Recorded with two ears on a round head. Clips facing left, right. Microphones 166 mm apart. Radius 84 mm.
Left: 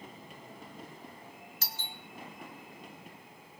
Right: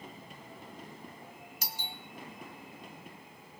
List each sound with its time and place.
1.6 s a doorbell: 15° right (ahead or behind), 0.9 m